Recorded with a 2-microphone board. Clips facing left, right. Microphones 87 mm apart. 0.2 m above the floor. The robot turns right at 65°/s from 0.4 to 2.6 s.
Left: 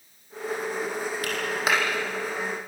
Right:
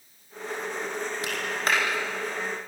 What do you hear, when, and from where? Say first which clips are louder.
1.2 s a clap: left 2 dB; 20° right (ahead or behind), 6.5 m; by 1.8 s 15° left (ahead or behind), 6.5 m